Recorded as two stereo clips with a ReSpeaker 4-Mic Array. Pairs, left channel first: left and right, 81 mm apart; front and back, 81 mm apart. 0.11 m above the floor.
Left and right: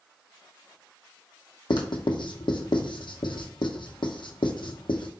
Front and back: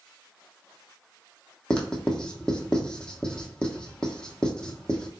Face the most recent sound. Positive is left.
turn(degrees=80)